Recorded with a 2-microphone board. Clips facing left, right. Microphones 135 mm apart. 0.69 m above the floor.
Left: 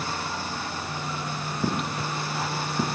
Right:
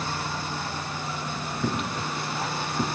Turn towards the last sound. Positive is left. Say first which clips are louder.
# left 1 dB
turn(degrees=15)  # may be behind; listen again after turning